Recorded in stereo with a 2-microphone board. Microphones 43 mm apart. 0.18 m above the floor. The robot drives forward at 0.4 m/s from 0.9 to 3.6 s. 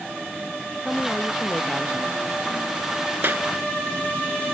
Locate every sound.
0.8 s a woman speaking: 10° left (ahead or behind)
3.2 s a clap: 55° right (ahead or behind)